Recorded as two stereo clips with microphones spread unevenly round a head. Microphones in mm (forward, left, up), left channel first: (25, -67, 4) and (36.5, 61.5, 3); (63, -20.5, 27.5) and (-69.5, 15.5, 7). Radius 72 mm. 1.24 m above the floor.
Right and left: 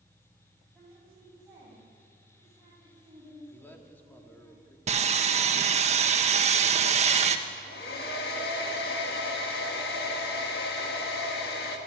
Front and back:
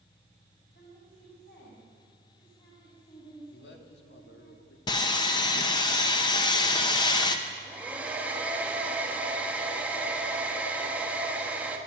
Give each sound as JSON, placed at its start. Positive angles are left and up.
{"t": 0.8, "sound": "a woman speaking", "azimuth_deg": 5, "distance_m": 7.0}
{"t": 3.5, "sound": "a man speaking", "azimuth_deg": -20, "distance_m": 2.5}
{"t": 4.9, "sound": "sawing", "azimuth_deg": 50, "distance_m": 1.3}
{"t": 7.5, "sound": "a hair dryer", "azimuth_deg": -115, "distance_m": 1.9}